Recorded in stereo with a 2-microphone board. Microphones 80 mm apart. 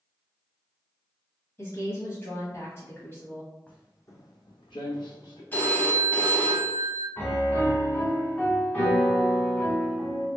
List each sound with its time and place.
1.6 s a woman speaking: 30° left (ahead or behind), 1.2 m
3.7 s footsteps: 15° left (ahead or behind), 0.9 m; by 5.4 s 65° left (ahead or behind), 1.2 m
5.5 s a phone ringing: 25° left (ahead or behind), 0.8 m
7.2 s a piano: 20° left (ahead or behind), 1.1 m